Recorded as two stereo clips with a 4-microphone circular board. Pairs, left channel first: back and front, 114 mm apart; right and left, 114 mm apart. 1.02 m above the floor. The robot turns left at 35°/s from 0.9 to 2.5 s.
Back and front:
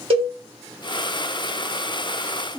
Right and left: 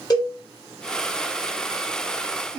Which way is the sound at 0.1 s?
35° right.